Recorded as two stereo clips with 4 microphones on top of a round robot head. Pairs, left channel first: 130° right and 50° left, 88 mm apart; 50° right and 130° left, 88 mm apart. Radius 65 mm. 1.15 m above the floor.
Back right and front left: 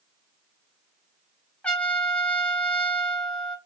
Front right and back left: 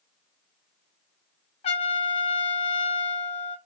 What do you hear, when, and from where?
1.6 s a trumpet: 55° right, 1.4 m